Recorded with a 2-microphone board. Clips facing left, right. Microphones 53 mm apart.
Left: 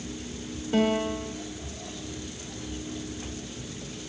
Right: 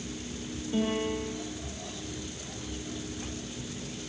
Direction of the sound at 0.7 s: 80° left.